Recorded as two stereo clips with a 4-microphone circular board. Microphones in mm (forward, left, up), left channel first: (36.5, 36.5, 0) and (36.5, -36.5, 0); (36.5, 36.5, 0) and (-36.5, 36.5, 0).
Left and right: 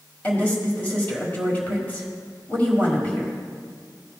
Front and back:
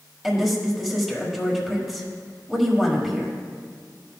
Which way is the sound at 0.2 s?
100° left.